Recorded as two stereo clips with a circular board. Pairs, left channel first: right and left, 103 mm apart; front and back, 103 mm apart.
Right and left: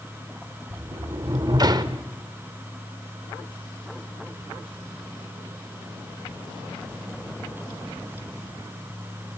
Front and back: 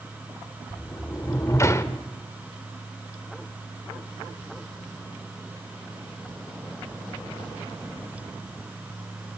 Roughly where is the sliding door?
Ahead left.